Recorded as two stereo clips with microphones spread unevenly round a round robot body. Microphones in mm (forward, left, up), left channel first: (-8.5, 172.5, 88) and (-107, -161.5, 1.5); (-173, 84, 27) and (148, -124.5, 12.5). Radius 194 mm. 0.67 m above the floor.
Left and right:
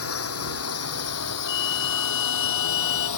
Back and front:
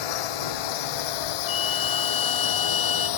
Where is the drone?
125° left; by 3.2 s 110° left.